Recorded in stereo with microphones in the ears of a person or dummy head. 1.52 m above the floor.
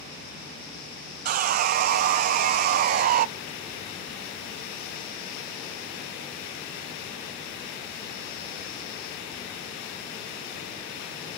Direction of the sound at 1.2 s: 40° right (ahead or behind).